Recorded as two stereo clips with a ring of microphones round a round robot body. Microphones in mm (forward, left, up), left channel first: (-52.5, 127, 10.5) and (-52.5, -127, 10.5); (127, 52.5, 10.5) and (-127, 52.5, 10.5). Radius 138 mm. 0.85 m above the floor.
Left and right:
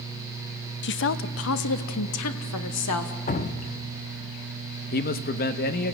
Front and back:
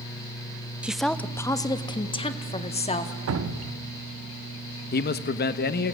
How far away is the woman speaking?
About 0.7 m.